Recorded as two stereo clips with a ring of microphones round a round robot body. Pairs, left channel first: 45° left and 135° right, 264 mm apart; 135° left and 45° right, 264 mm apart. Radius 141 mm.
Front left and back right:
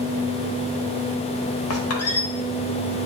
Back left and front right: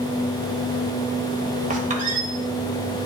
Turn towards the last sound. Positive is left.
turn(degrees=15)